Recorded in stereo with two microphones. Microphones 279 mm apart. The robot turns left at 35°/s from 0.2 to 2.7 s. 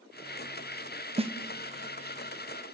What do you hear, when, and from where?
1.2 s a snare drum: 20° right (ahead or behind), 0.7 m